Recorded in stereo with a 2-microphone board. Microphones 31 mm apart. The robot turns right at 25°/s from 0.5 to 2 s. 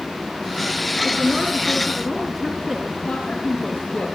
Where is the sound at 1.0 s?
30° right (ahead or behind), 3 m; by 2.9 s 10° right (ahead or behind), 3 m.